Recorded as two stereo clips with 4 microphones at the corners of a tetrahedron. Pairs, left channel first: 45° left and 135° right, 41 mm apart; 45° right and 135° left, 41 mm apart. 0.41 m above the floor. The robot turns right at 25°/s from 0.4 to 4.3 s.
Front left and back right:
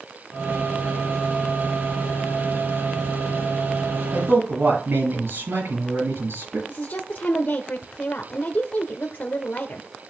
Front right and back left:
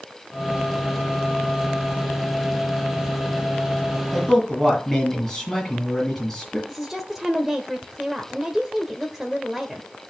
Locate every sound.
4.1 s a man speaking: 130° right, 7.5 m; by 6.6 s 125° right, 7.5 m
6.7 s a woman speaking: 60° left, 1.1 m